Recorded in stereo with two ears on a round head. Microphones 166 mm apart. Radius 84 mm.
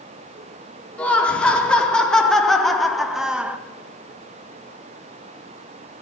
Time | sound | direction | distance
1.0 | laughter | 5° left (ahead or behind) | 4 m